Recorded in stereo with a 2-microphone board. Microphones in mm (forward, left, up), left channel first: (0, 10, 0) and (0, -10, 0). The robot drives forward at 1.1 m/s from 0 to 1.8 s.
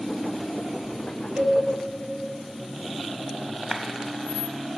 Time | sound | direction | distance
1.4 | a cowbell | 60° right (ahead or behind) | 3 m
3.7 | a clap | 40° right (ahead or behind) | 1.0 m